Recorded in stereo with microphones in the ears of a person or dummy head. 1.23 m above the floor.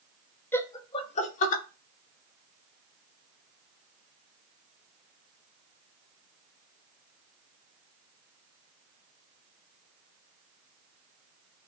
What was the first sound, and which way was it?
Laughter, 10° left (ahead or behind).